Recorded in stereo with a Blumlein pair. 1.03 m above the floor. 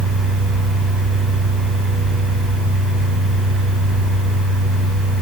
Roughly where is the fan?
Ahead.